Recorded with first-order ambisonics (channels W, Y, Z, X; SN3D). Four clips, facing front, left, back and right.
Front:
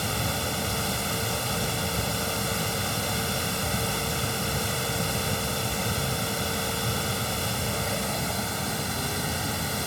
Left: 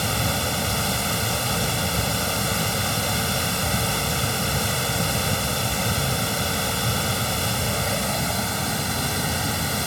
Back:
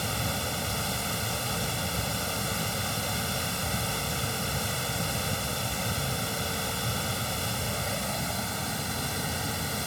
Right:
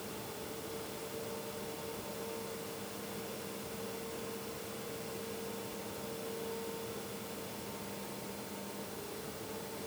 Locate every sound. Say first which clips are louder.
0.0 s running water: left 20 dB, front 2 dB; 80° left